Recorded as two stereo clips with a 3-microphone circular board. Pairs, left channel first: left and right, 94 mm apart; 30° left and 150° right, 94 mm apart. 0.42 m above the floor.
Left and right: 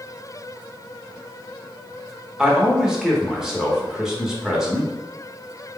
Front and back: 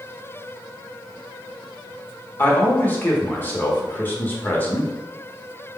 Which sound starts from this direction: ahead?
A man speaking, at 2.4 s.